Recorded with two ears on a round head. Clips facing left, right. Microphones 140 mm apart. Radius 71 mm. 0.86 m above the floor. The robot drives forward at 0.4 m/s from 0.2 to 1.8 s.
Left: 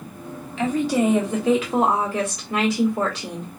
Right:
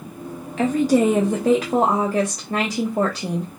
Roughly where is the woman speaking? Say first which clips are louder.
Right 4 dB; right.